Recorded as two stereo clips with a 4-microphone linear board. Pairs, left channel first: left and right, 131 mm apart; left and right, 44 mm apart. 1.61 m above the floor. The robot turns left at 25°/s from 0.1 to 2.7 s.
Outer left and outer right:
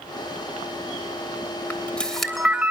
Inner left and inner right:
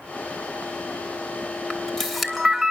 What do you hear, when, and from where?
1.7 s a camera shutter: 15° left (ahead or behind), 3 m; by 2.7 s 10° right (ahead or behind), 3 m